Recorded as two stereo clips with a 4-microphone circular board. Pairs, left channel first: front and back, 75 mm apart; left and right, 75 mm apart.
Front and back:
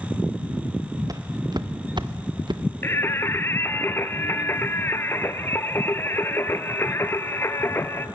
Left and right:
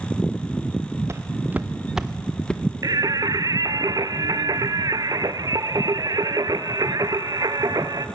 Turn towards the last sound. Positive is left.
turn(degrees=-55)